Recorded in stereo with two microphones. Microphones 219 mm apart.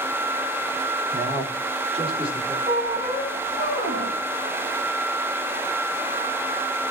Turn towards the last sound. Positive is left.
turn(degrees=-75)  # may be behind; listen again after turning